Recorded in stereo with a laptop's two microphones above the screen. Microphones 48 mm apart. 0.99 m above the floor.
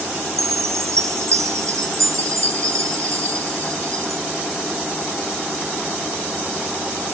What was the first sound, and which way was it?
A chime, 85° right.